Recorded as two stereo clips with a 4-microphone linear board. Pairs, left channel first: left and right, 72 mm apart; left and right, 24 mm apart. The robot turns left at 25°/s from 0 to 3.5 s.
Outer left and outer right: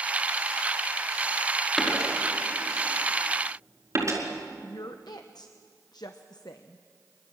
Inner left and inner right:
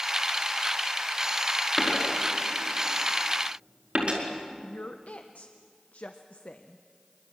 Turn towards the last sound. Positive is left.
turn(degrees=70)  # may be behind; listen again after turning